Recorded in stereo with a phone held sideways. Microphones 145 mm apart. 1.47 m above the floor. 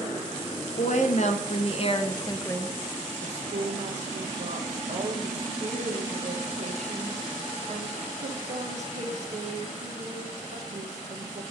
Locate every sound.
0.8 s a woman speaking: 65° left (ahead or behind), 1.2 m; by 2.8 s 10° left (ahead or behind), 0.6 m
3.2 s a woman speaking: 55° right (ahead or behind), 1.4 m